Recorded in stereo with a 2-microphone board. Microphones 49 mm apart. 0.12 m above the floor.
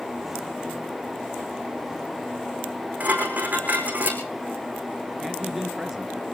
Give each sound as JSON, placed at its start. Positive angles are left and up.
{"t": 3.0, "sound": "dishes clattering", "side_deg": -35, "distance_m": 4.5}
{"t": 5.2, "sound": "a man speaking", "side_deg": -5, "distance_m": 2.0}